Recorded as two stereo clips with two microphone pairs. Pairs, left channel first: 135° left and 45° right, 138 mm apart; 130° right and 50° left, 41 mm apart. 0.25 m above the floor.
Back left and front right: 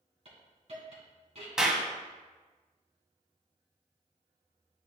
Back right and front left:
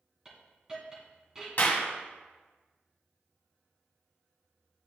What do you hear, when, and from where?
0.2 s a hiss: 15° right, 2 m
1.6 s a clap: 130° right, 1.2 m